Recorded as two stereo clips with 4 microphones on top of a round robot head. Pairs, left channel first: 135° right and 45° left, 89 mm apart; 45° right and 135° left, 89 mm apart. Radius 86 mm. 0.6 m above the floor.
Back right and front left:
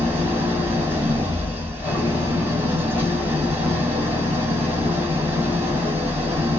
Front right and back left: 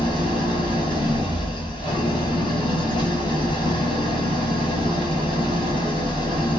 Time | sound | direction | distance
0.0 | an engine running | 20° right | 1.8 m